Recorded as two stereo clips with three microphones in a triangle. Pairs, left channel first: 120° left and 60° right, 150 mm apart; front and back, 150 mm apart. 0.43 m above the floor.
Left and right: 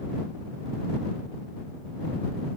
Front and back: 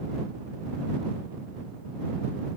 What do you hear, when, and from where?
Only background noise.